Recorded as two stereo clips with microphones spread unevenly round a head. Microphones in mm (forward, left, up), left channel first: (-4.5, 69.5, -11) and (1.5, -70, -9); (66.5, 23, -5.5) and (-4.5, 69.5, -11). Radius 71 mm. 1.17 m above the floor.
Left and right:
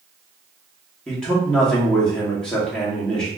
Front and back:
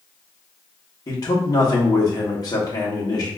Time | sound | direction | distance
1.1 | a man speaking | 5° left | 1.6 m